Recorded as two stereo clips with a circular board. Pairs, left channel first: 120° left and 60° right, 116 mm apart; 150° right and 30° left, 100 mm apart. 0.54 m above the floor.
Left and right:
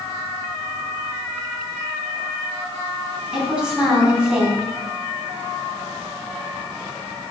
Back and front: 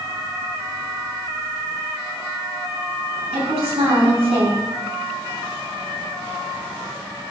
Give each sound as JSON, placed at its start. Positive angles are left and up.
{"t": 3.3, "sound": "a woman speaking", "azimuth_deg": 20, "distance_m": 4.0}